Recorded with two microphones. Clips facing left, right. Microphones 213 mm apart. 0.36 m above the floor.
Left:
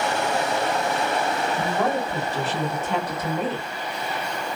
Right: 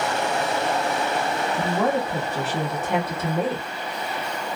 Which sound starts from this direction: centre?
A woman speaking, at 1.6 s.